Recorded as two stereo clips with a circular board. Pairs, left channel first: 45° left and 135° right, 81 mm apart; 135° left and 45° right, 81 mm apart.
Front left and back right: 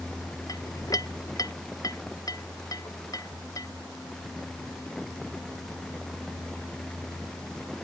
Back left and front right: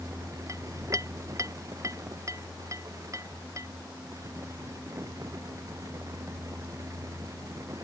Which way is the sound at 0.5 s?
5° left.